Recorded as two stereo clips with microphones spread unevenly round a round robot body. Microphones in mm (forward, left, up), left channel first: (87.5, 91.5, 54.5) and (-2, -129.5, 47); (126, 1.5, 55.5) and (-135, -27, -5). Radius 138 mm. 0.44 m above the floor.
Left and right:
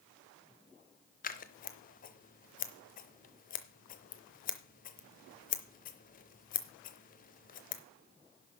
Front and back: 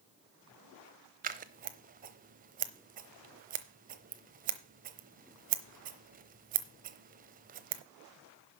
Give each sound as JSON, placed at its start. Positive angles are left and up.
{"t": 1.2, "sound": "scissors", "azimuth_deg": 130, "distance_m": 0.8}